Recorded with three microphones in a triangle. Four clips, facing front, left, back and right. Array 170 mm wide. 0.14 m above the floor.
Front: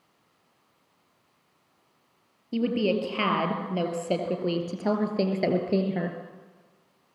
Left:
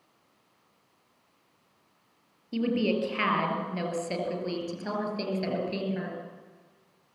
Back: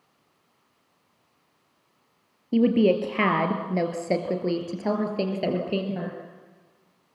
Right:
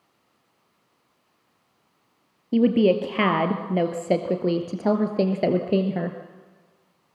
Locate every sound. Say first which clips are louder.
2.5 s a woman speaking: right 9 dB, back 6 dB; 120° right, 2.5 m; by 6.2 s 75° right, 2.5 m